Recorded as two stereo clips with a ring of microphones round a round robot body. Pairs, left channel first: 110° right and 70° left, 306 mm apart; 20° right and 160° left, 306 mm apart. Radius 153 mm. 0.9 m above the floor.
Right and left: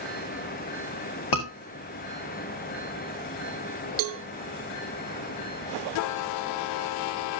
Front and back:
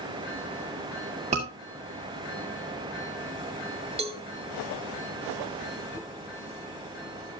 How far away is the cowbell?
About 1.5 m.